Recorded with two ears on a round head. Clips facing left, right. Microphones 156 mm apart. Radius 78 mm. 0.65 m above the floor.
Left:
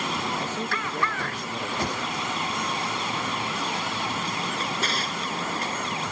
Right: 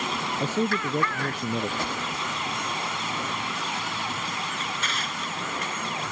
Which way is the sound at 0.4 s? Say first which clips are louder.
Right 5 dB; 85° right.